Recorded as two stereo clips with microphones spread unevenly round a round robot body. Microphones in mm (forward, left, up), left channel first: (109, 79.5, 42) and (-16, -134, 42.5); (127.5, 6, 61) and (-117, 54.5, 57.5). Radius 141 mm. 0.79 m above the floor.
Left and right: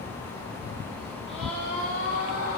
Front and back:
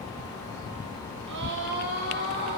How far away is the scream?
About 3.5 m.